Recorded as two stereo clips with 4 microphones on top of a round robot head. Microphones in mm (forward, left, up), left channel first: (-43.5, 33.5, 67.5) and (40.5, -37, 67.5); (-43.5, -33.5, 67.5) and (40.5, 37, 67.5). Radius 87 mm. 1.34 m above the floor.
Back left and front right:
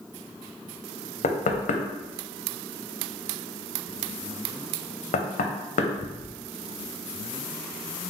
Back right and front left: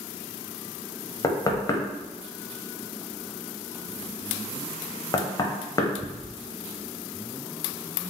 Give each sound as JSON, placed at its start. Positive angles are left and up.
{"t": 1.2, "sound": "knocking", "azimuth_deg": 160, "distance_m": 0.6}